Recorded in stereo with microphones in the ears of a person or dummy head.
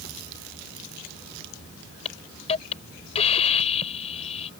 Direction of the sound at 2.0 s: 35° left (ahead or behind).